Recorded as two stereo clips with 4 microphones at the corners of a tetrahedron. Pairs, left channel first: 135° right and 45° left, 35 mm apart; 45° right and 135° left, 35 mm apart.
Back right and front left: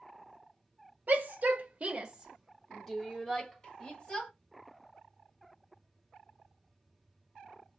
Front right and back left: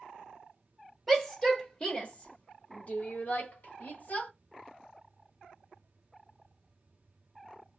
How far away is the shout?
About 0.8 m.